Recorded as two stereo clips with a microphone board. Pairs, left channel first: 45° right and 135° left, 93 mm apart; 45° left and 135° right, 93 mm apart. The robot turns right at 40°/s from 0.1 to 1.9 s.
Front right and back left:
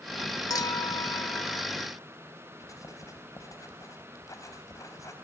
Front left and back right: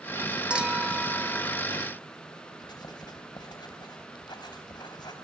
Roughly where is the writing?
Ahead.